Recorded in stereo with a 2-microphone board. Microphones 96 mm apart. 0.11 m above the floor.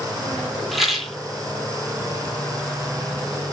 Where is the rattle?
Centre (ahead or behind), 0.7 m.